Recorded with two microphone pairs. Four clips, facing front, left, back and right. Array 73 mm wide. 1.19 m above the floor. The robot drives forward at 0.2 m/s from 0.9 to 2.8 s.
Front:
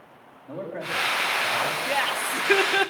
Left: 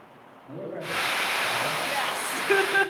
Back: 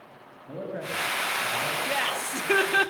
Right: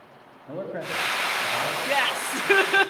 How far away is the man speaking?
About 6.5 m.